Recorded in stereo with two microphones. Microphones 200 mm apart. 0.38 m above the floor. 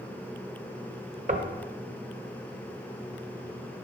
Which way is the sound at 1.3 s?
40° right (ahead or behind).